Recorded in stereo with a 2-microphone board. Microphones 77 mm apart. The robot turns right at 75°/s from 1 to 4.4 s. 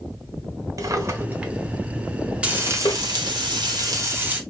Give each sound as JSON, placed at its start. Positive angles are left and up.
{"t": 0.8, "sound": "a drawer", "side_deg": -45, "distance_m": 0.9}
{"t": 2.4, "sound": "frying", "azimuth_deg": -165, "distance_m": 1.0}